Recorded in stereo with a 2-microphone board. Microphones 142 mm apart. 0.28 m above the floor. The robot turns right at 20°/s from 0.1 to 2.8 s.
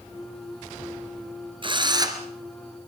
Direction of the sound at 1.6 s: 35° right (ahead or behind).